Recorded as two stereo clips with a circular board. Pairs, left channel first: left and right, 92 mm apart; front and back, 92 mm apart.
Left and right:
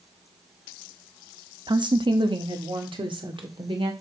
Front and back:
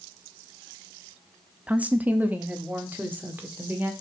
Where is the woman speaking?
105° right, 0.8 m; by 3.9 s 110° right, 2 m.